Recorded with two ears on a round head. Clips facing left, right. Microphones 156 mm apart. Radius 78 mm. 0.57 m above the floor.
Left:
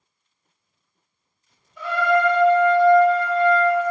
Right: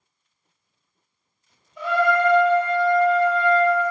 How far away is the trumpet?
About 1.1 m.